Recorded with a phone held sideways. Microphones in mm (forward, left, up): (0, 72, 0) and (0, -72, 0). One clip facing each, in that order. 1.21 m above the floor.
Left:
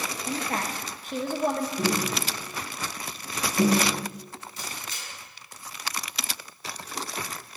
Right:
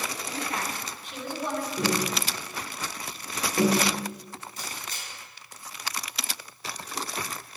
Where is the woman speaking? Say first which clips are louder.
Left 4 dB; 45° left (ahead or behind), 0.6 m.